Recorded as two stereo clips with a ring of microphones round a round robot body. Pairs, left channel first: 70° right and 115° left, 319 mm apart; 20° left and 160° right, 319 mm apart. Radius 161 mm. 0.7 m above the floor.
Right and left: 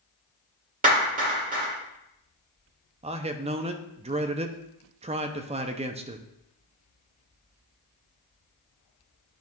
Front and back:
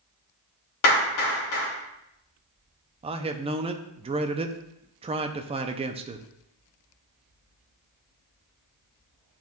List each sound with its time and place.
0.8 s a clap: 50° left, 2.5 m
3.0 s a man speaking: 155° left, 0.5 m